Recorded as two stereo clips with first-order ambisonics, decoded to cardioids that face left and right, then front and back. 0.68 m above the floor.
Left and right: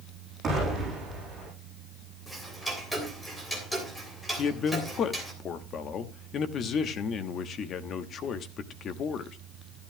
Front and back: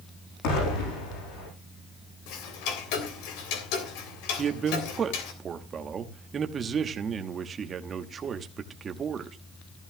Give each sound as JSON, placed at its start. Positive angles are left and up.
{"t": 0.4, "sound": "an explosion", "azimuth_deg": -20, "distance_m": 9.0}
{"t": 2.3, "sound": "ticking", "azimuth_deg": 5, "distance_m": 3.0}
{"t": 4.4, "sound": "a man speaking", "azimuth_deg": 125, "distance_m": 1.0}